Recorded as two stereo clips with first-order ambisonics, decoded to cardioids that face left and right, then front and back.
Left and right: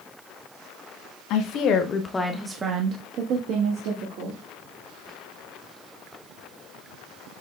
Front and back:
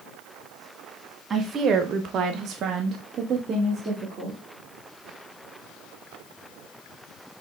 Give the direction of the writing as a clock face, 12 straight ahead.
I don't hear writing.